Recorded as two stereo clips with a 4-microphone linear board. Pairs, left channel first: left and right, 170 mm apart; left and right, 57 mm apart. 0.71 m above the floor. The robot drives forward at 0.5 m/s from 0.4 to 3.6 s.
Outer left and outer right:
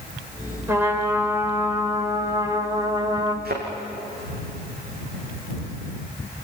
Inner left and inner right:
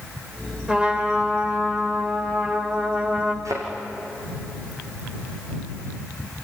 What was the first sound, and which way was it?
A trumpet, 15° right (ahead or behind).